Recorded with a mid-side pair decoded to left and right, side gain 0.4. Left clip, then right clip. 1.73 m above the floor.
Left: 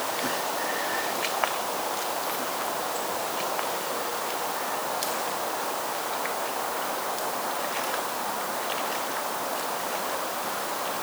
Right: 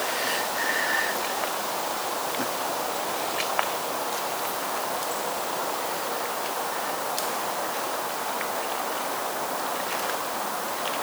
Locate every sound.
Only background noise.